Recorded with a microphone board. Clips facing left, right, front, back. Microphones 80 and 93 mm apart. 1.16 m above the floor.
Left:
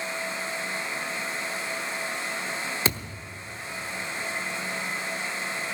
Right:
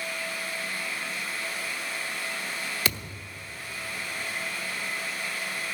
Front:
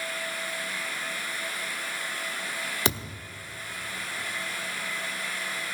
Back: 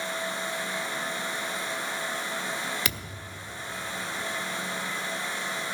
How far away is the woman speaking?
I don't hear a woman speaking.